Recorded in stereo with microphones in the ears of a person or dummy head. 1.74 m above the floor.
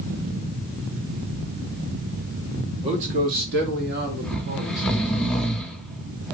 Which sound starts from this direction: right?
A man speaking, at 2.8 s.